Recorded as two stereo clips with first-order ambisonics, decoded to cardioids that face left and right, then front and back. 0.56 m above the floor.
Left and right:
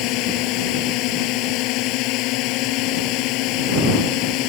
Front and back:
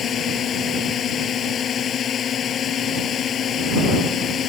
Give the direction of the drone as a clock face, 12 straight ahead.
10 o'clock.